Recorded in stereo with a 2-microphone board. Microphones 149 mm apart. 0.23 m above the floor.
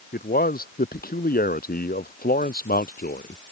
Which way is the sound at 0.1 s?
80° left.